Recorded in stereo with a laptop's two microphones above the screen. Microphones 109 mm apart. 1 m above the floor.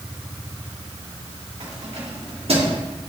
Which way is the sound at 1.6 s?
70° right (ahead or behind).